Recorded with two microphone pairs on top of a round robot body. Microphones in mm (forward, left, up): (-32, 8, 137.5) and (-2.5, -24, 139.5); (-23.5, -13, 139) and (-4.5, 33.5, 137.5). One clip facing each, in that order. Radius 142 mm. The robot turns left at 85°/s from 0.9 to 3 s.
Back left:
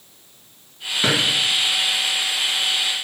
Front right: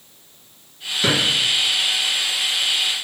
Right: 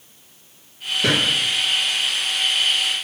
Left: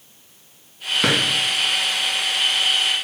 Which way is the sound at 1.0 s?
65° left.